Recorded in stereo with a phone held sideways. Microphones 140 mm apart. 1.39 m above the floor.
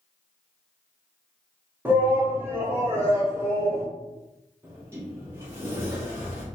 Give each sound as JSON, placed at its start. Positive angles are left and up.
{"t": 1.9, "sound": "a shout", "side_deg": -15, "distance_m": 2.5}
{"t": 4.6, "sound": "a sliding door", "side_deg": -20, "distance_m": 2.5}